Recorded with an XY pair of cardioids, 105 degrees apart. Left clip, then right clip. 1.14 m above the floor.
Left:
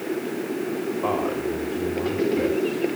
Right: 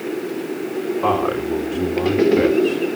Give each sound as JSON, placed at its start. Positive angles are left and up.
{"t": 1.0, "sound": "a man speaking", "azimuth_deg": -65, "distance_m": 3.0}